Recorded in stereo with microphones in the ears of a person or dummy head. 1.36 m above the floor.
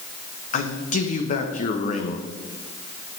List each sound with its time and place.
0.5 s a man speaking: 45° left (ahead or behind), 0.9 m